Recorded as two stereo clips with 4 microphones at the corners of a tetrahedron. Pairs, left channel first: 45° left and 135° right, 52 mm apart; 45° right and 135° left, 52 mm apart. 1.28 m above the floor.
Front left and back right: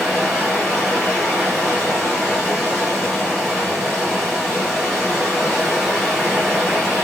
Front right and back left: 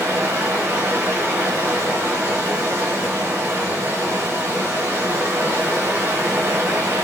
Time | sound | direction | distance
0.0 | running water | 140° left | 3 m